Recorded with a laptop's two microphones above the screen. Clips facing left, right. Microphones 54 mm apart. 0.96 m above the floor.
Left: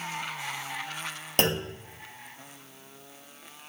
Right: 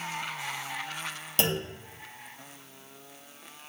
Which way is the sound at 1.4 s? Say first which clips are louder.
Left 3 dB; 45° left (ahead or behind).